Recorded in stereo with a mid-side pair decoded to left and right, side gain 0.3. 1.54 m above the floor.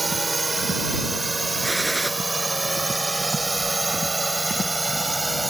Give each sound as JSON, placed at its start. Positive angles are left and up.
{"t": 0.0, "sound": "a drone", "azimuth_deg": -30}
{"t": 1.6, "sound": "a gunshot", "azimuth_deg": -15}